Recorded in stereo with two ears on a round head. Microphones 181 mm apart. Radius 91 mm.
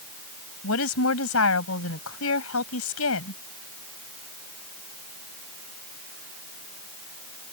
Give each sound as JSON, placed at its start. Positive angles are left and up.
{"t": 0.6, "sound": "a woman speaking", "side_deg": 80}